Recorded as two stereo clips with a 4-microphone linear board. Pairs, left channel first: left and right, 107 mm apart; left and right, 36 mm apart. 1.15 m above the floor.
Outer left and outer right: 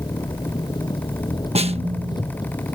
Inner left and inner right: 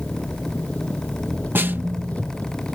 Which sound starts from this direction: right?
A snare drum, at 1.6 s.